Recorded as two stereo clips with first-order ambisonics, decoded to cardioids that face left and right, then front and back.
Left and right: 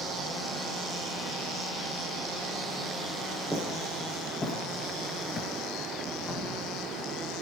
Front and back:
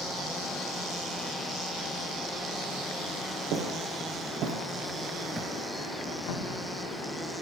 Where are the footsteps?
175° left, 3 m; by 5.5 s 65° left, 1.8 m.